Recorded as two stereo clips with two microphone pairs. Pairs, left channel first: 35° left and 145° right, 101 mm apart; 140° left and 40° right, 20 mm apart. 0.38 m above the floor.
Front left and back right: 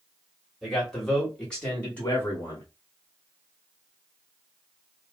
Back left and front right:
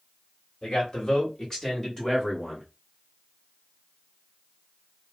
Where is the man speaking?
130° left, 1.9 m; by 2.6 s 65° left, 1.5 m.